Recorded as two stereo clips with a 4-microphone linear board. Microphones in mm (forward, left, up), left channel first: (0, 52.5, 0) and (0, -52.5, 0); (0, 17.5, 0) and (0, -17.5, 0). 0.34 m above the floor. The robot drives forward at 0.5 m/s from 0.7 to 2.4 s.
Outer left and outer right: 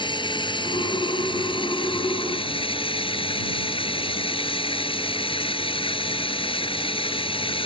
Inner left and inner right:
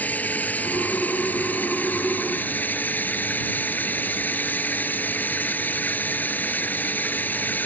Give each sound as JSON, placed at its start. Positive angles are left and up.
{"t": 0.0, "sound": "running water", "side_deg": 50}